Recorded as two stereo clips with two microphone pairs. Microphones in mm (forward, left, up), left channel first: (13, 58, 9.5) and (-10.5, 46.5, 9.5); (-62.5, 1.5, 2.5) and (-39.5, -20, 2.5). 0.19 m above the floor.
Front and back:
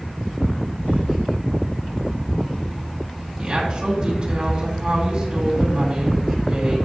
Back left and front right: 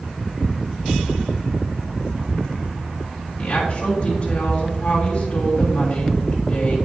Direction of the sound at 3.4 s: 165° left.